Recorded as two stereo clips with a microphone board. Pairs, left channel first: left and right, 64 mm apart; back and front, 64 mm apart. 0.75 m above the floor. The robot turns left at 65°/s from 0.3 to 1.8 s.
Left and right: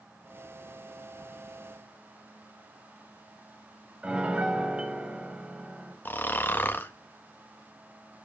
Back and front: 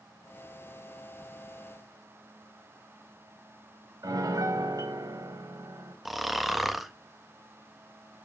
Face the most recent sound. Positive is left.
turn(degrees=85)